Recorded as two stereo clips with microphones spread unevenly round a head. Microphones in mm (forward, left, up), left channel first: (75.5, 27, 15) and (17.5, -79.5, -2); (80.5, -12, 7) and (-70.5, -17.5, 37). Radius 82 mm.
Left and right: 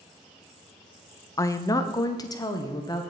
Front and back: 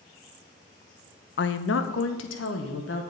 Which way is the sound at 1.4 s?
15° left.